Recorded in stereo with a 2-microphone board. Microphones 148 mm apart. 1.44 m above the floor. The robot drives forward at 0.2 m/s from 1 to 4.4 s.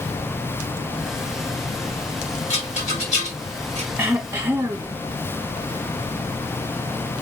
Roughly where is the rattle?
Left.